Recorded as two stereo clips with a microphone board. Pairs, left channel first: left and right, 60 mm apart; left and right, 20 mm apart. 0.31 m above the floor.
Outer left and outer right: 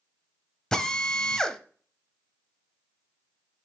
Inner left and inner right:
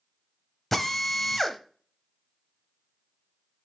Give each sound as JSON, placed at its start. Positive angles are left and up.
{"t": 0.7, "sound": "a drill", "side_deg": 10, "distance_m": 0.7}